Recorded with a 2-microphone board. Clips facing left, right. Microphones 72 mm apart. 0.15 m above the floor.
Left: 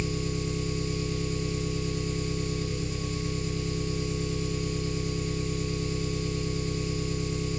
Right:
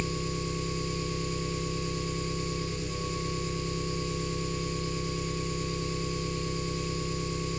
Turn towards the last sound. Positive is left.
turn(degrees=5)  # may be behind; listen again after turning